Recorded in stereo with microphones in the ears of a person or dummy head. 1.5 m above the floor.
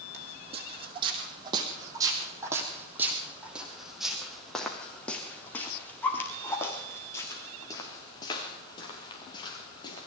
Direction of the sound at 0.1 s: 40° right (ahead or behind).